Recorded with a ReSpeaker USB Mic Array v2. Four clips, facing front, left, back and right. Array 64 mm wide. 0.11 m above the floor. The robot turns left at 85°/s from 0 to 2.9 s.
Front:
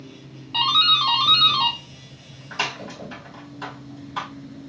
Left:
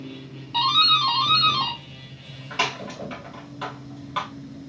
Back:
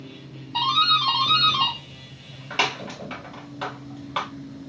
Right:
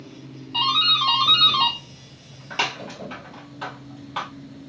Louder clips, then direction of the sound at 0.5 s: Left 2 dB, even; 20° left.